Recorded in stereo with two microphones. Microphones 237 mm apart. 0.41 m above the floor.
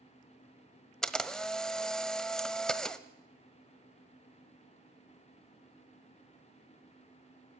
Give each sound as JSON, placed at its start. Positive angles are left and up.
{"t": 1.0, "sound": "a camera shutter", "side_deg": 0, "distance_m": 1.1}